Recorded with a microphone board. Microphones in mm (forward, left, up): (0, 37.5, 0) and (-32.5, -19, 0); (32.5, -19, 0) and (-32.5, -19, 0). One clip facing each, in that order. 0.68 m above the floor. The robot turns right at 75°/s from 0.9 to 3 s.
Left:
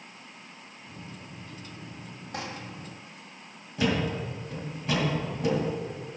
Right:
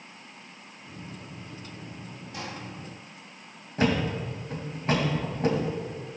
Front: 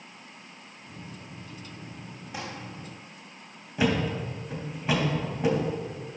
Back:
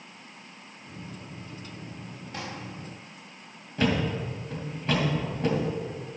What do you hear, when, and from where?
2.3 s crumpling: 75° left, 4.5 m; by 2.4 s 85° left, 4.5 m
3.8 s a thud: 80° right, 2.5 m